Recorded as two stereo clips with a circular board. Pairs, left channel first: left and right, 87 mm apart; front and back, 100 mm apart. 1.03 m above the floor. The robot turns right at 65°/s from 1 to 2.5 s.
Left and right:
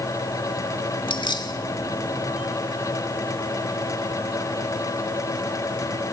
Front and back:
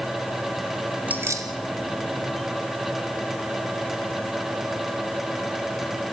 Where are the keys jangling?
105° left, 1.7 m; by 1.5 s 135° left, 1.7 m.